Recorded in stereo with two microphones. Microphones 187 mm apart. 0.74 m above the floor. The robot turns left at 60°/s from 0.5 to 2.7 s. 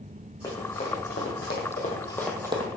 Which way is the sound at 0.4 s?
15° left (ahead or behind).